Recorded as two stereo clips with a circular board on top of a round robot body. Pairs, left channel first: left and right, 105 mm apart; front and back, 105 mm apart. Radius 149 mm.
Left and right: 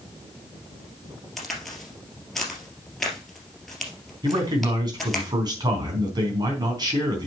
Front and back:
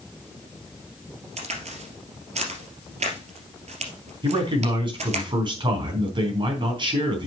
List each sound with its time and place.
1.4 s a crack: straight behind, 2.5 m
4.2 s a man speaking: 140° right, 4 m